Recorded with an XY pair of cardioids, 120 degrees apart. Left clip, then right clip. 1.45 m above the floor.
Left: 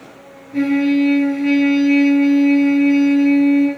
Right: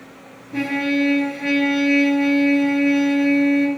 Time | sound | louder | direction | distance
0.5 | a trumpet | left 4 dB | 35° right | 1.2 m